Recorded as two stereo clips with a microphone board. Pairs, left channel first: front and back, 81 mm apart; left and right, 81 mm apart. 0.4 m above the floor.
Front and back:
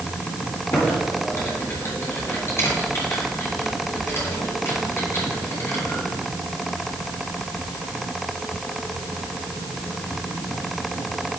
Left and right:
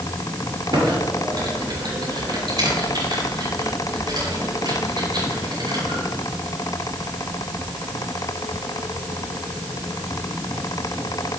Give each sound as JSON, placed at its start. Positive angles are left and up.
{"t": 0.7, "sound": "typing on a keyboard", "azimuth_deg": -60, "distance_m": 7.0}